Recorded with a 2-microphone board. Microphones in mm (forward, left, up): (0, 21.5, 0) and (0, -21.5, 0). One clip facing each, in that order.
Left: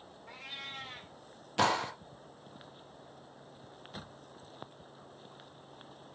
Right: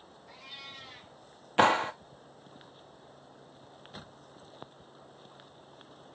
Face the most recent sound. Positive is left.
turn(degrees=-35)  # may be behind; listen again after turning